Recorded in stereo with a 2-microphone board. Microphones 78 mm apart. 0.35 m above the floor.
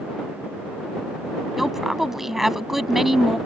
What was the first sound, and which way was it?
A woman speaking, 5° right (ahead or behind).